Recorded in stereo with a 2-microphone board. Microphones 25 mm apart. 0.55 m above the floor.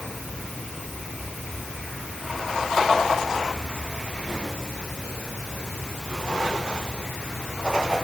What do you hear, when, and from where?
Only background noise.